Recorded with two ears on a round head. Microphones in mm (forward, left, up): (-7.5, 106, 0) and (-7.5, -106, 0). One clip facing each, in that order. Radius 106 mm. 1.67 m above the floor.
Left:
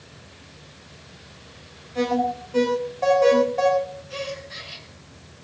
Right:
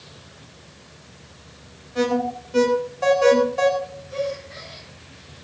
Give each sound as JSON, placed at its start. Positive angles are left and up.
{"t": 1.9, "sound": "an alarm", "side_deg": -15, "distance_m": 5.0}
{"t": 4.1, "sound": "a gasp", "side_deg": 50, "distance_m": 6.5}